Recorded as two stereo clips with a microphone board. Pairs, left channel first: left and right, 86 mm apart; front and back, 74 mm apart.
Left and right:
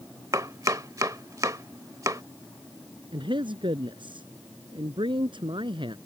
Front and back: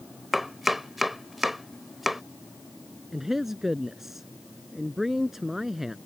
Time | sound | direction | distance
0.3 | chopping | 95° right | ?
3.1 | a man speaking | 95° right | ?